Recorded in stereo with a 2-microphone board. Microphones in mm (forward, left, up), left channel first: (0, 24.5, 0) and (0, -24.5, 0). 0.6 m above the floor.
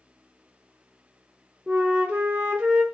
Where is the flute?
25° right (ahead or behind), 0.8 m.